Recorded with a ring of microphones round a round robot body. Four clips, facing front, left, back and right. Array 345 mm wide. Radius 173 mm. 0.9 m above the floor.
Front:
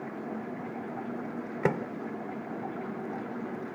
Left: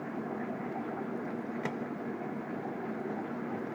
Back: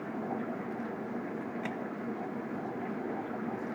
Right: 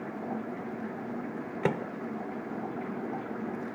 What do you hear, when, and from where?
1.6 s a microwave: 30° right